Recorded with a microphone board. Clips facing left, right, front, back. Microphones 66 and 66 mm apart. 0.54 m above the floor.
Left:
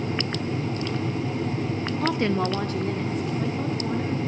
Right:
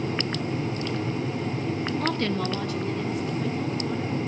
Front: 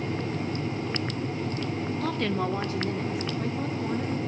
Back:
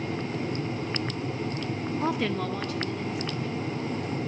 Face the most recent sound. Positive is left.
turn(degrees=40)